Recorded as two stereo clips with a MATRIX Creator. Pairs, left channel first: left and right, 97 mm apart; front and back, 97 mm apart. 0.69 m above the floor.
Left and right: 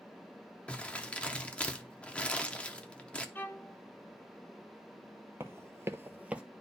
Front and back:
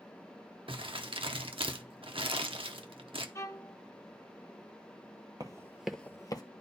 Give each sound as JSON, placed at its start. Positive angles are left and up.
{"t": 0.7, "sound": "crumpling", "azimuth_deg": 165, "distance_m": 0.7}
{"t": 3.4, "sound": "a violin", "azimuth_deg": 35, "distance_m": 0.6}
{"t": 5.4, "sound": "running footsteps", "azimuth_deg": -145, "distance_m": 1.0}